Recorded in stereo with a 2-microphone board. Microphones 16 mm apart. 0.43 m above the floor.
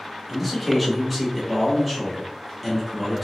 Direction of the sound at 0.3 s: Centre (ahead or behind).